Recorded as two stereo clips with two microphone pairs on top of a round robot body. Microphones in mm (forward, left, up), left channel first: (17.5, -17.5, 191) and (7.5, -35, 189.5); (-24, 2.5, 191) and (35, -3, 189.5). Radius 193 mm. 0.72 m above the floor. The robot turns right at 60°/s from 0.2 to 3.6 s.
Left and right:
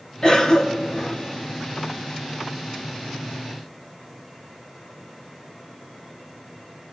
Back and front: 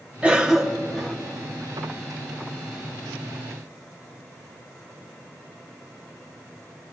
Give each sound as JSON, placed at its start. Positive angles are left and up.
{"t": 0.2, "sound": "a cough", "azimuth_deg": 50, "distance_m": 1.1}